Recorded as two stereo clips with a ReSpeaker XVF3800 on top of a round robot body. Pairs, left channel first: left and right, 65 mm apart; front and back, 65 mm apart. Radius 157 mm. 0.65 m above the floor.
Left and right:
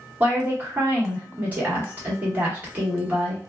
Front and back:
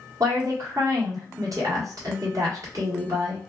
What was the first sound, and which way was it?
A woman speaking, 150° right.